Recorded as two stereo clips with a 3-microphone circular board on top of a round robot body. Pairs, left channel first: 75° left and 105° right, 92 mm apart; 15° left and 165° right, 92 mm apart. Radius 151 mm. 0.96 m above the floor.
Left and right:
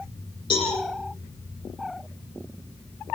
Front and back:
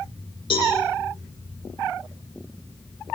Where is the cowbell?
40° left, 9.5 m.